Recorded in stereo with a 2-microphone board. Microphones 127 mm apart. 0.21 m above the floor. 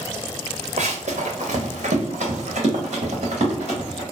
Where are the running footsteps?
75° right (ahead or behind), 0.7 m; by 4.0 s 60° right (ahead or behind), 2.5 m.